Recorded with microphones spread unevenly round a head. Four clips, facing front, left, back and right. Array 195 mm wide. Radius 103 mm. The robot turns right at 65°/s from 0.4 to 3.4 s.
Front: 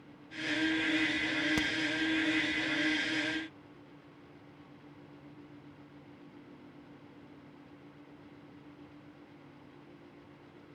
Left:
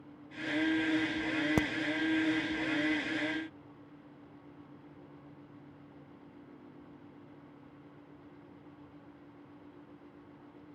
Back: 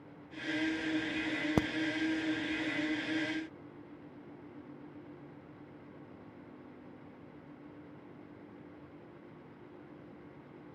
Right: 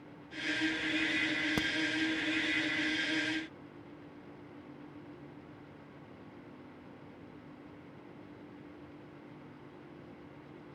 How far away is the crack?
About 0.7 m.